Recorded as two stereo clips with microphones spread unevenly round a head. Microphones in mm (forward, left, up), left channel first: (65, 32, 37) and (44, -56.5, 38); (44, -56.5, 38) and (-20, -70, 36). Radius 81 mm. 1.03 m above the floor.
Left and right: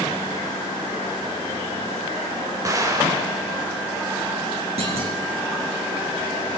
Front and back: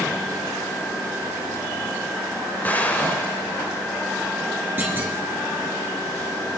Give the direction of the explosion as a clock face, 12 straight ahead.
2 o'clock.